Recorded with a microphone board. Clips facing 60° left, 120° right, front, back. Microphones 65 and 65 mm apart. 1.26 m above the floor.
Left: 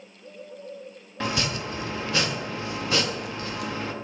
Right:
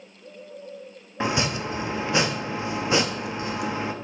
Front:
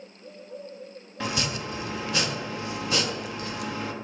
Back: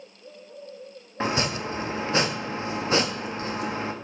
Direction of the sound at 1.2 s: 170° right.